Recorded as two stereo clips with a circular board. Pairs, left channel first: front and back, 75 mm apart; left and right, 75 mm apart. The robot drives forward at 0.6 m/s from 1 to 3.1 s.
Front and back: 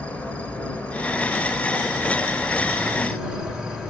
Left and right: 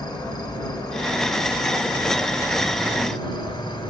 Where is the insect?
70° left, 2.5 m; by 3.9 s 100° left, 2.5 m.